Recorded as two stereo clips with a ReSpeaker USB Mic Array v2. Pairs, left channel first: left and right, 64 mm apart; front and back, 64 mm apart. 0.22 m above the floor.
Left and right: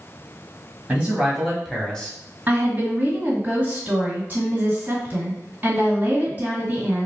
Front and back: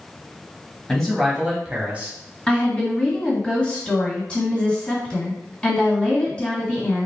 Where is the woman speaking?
60° right, 1.9 m.